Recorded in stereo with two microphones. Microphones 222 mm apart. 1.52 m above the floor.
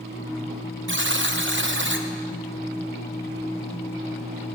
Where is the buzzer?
60° right (ahead or behind), 1.0 m.